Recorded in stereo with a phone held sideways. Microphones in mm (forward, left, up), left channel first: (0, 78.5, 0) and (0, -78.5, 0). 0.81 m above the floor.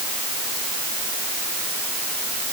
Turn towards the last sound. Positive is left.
No sound to turn to.